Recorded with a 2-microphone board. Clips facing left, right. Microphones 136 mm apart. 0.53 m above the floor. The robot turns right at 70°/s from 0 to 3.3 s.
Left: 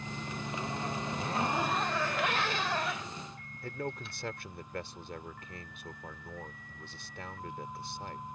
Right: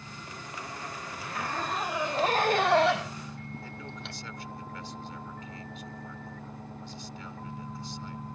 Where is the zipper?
135° left; by 4.2 s 70° right.